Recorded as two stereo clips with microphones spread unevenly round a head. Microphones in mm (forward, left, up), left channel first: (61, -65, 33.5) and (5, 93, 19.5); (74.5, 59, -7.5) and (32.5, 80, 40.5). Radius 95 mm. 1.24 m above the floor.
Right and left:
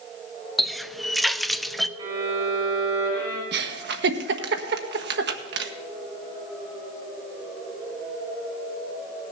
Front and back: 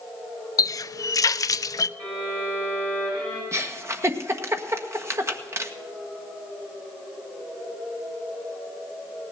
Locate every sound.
0.6 s a running tap: 15° left, 0.5 m
2.0 s a violin: 175° left, 8 m
3.5 s a giggle: 105° left, 1.4 m